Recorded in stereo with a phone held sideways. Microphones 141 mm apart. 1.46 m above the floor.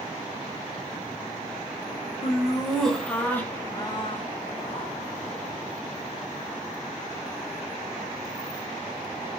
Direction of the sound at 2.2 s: 5° right (ahead or behind).